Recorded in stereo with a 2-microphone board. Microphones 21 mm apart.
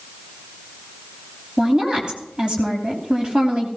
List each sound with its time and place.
1.6 s a woman speaking: 45° right (ahead or behind), 2.5 m